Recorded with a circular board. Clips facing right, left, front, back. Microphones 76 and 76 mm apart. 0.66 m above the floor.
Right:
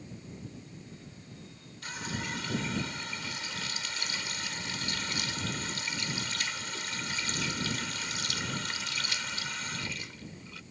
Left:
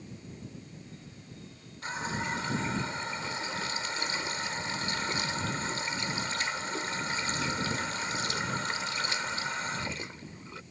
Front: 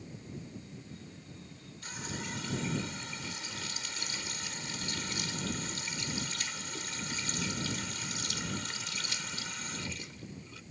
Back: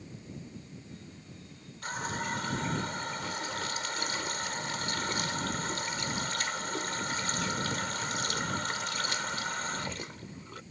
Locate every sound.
1.8 s a running tap: 150° left